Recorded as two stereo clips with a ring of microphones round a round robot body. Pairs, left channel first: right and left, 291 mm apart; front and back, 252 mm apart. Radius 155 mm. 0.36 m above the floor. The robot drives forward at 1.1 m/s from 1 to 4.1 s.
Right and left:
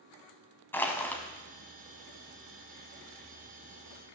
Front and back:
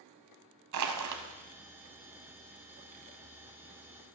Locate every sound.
0.7 s crushing: 175° right, 1.3 m